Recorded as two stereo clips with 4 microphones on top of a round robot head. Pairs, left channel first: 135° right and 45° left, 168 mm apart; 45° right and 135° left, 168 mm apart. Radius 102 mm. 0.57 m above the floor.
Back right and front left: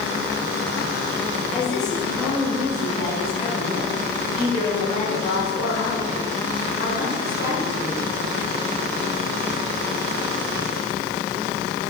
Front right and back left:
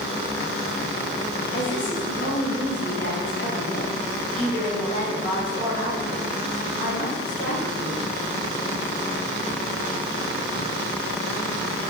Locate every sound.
1.5 s a woman speaking: 50° right, 4.5 m; by 8.0 s 90° right, 8 m